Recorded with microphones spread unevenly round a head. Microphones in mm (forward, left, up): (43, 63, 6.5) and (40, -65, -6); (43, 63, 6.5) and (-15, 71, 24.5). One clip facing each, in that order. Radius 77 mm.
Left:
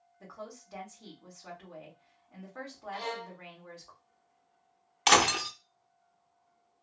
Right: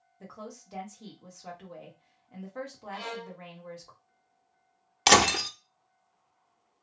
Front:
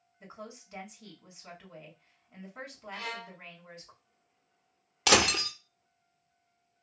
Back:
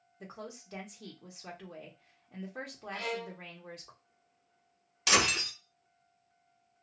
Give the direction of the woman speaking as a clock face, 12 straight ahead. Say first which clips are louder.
Right 1 dB, back 1 dB; 5 o'clock.